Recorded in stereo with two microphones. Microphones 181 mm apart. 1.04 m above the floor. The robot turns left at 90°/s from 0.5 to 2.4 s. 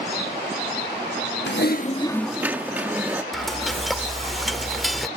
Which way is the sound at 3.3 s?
Centre (ahead or behind).